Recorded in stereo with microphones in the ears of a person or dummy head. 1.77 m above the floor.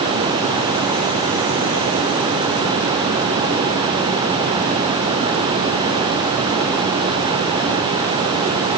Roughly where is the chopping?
No chopping in this recording.